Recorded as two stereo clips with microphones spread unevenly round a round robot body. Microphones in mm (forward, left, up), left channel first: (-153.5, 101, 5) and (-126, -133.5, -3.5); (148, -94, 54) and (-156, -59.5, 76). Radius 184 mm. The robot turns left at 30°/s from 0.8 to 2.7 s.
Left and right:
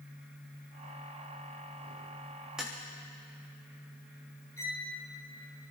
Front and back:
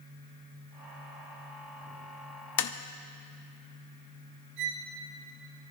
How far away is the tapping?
About 0.7 m.